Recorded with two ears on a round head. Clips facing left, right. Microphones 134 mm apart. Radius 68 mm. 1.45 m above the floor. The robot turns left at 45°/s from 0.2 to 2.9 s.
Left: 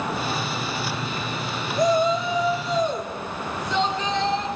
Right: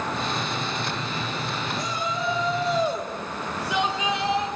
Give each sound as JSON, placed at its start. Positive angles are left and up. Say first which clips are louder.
{"t": 1.8, "sound": "a shout", "louder": "left 14 dB", "azimuth_deg": 40, "distance_m": 3.5}